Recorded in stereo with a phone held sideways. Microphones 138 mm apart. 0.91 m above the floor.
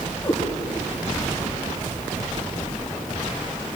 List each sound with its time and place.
0.2 s a cat meowing: 35° left (ahead or behind), 9.5 m